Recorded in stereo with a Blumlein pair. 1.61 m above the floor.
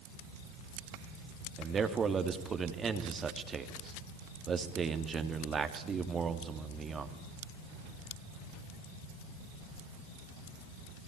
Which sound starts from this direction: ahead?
A man speaking, at 1.6 s.